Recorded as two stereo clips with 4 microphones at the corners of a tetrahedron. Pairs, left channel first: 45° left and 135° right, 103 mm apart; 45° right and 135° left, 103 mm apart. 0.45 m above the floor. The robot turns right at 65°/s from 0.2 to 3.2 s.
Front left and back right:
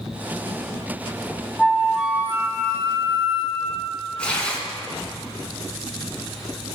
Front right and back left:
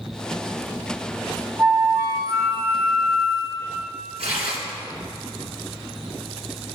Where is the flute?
120° left, 1.2 m; by 3.8 s 135° right, 1.2 m.